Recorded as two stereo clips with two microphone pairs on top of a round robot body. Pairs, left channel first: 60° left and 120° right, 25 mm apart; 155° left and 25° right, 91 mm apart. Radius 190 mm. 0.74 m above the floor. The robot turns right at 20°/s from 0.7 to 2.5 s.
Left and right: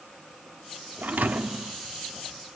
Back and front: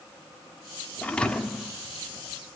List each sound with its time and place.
1.0 s a thud: 130° right, 1.1 m; by 1.7 s 115° right, 1.1 m